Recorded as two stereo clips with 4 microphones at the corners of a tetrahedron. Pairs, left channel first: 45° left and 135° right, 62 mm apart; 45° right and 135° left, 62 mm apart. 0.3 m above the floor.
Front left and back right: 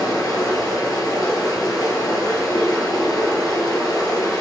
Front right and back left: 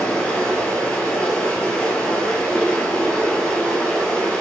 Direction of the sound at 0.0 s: 30° left.